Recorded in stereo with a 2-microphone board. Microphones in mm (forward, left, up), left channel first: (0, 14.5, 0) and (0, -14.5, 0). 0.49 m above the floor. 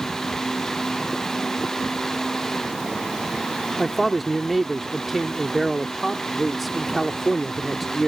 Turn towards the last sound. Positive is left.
turn(degrees=-5)  # may be behind; listen again after turning